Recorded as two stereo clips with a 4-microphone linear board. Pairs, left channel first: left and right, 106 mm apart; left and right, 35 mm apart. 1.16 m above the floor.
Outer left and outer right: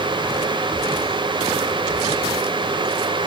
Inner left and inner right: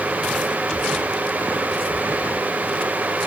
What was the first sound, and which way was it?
Only background noise.